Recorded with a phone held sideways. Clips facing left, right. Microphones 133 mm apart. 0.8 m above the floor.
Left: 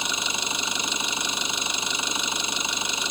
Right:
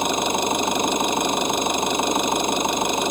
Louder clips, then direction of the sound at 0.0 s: Right 11 dB; 55° right (ahead or behind).